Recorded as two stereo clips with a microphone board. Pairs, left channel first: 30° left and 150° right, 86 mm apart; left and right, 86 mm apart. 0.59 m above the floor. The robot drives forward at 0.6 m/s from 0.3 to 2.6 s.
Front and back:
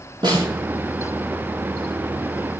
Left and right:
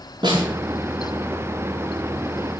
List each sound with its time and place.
0.2 s a snare drum: 120° right, 9 m